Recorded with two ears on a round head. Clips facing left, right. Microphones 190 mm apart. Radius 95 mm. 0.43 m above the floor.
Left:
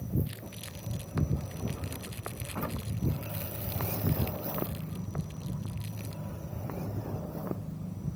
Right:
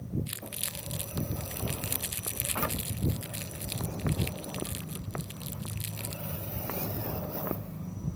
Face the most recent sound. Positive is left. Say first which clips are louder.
# even
turn(degrees=-65)  # may be behind; listen again after turning